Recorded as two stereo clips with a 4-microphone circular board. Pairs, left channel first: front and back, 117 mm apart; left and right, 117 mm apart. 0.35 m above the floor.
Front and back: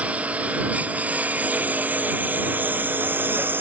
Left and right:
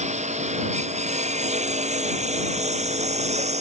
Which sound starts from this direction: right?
A lawn mower, at 0.0 s.